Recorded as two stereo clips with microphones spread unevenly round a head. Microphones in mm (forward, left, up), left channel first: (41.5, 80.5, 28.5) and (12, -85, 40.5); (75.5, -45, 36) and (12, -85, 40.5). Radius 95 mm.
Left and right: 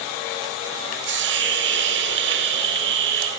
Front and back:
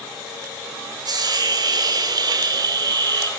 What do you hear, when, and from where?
1.1 s a hiss: 120° right, 4.5 m